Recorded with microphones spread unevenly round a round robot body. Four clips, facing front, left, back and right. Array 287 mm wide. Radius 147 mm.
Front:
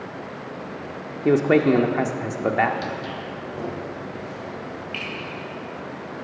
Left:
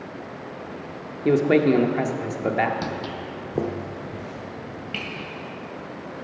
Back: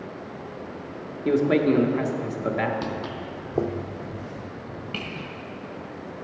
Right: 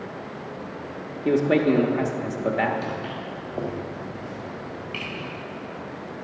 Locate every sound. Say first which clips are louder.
1.2 s a man speaking: left 2 dB, front 3 dB; 25° left, 0.8 m
2.8 s footsteps: left 1 dB, front 1 dB; 105° left, 0.8 m; by 5.2 s 135° left, 3 m